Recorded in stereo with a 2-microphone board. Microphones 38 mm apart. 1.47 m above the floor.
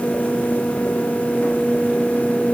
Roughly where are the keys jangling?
I don't hear keys jangling.